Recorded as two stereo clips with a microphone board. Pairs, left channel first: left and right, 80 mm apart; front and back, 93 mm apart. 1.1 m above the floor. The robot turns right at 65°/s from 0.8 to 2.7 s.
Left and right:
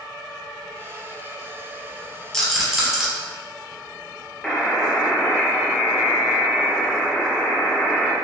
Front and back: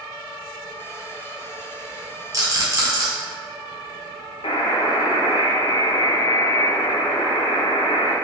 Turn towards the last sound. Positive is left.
turn(degrees=5)